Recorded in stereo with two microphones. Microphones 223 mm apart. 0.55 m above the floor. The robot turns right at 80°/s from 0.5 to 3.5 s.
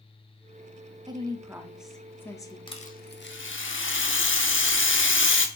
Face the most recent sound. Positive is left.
turn(degrees=90)